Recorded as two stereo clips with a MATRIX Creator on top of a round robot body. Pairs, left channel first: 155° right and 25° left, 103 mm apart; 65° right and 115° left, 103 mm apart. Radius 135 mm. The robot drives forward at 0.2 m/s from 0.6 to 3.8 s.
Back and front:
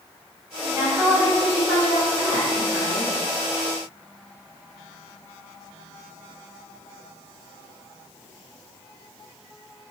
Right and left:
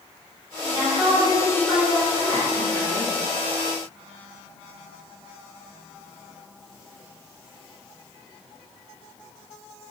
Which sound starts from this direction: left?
A woman speaking, at 0.7 s.